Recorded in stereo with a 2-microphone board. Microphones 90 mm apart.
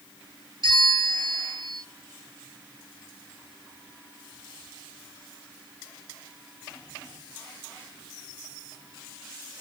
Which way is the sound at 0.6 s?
60° right (ahead or behind).